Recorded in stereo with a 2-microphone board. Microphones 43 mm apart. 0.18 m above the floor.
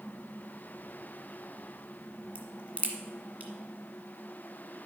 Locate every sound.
2.4 s a crack: 35° right (ahead or behind), 1.6 m